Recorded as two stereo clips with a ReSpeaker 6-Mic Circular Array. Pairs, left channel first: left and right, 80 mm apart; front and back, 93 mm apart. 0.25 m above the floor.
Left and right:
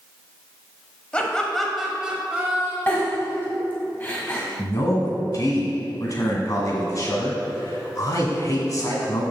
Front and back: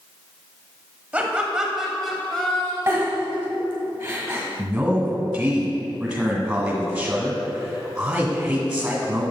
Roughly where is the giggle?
Behind left.